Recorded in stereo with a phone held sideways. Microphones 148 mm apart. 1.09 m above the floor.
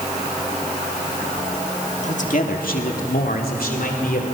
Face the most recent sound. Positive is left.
turn(degrees=70)  # may be behind; listen again after turning